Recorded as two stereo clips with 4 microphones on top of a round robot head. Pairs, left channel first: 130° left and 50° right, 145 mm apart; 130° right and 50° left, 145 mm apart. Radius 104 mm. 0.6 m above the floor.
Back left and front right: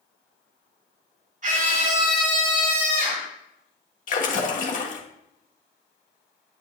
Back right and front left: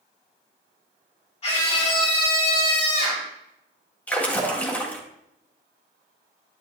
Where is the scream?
80° right, 3 m.